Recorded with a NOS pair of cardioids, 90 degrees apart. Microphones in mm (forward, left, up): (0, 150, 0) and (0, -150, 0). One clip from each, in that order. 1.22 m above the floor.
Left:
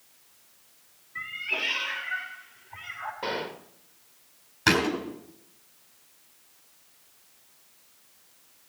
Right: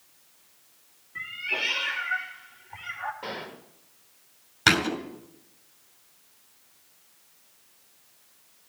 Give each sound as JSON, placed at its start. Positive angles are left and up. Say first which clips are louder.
{"t": 1.1, "sound": "a cat meowing", "louder": "right 1 dB", "azimuth_deg": -20, "distance_m": 2.5}
{"t": 3.2, "sound": "a gunshot", "louder": "left 5 dB", "azimuth_deg": 30, "distance_m": 1.7}
{"t": 4.7, "sound": "a thud", "louder": "right 1 dB", "azimuth_deg": -30, "distance_m": 4.0}